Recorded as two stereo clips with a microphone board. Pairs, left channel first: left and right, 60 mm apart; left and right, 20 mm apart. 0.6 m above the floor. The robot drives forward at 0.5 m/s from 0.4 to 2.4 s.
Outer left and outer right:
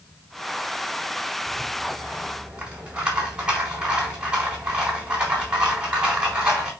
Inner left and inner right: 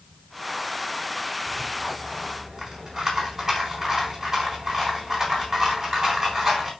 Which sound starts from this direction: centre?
A rattle, at 1.5 s.